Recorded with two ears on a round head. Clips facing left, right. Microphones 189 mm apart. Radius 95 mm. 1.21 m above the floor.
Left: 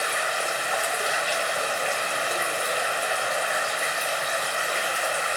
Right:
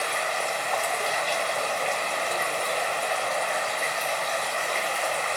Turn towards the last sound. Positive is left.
turn(degrees=10)  # may be behind; listen again after turning